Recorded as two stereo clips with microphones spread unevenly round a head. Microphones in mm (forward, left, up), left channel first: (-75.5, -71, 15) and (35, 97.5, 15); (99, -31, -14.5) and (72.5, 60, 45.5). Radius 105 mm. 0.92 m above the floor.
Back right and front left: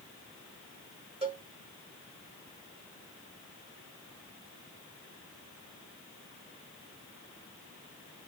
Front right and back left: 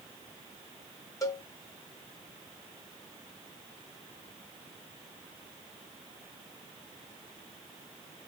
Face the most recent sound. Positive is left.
turn(degrees=-5)